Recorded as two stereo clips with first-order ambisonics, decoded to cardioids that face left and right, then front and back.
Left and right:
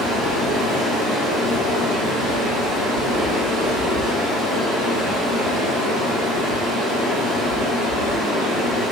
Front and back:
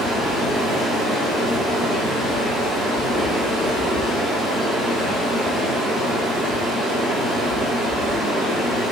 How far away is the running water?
About 1.4 m.